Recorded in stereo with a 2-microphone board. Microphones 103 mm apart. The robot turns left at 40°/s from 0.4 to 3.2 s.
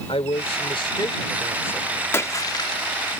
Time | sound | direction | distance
0.1 | a man speaking | 75° left | ?
2.1 | a splash | 25° left (ahead or behind) | ?